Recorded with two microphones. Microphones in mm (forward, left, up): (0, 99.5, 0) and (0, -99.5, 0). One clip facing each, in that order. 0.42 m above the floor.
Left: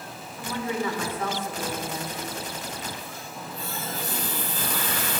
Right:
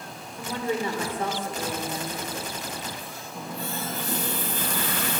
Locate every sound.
0.4 s a woman speaking: 30° right (ahead or behind), 1.0 m
3.3 s a running tap: 70° right (ahead or behind), 1.8 m